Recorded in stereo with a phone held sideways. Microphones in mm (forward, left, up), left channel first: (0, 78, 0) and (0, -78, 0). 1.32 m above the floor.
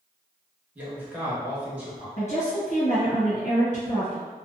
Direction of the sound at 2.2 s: 45° left (ahead or behind).